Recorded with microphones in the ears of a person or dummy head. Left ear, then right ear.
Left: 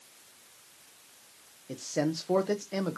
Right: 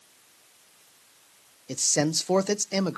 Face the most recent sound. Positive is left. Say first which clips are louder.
# right 6 dB
turn(degrees=-70)  # may be behind; listen again after turning